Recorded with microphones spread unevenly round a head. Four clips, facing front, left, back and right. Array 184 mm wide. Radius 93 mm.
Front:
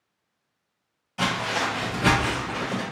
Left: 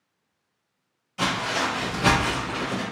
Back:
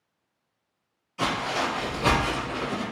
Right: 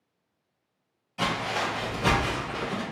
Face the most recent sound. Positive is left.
turn(degrees=45)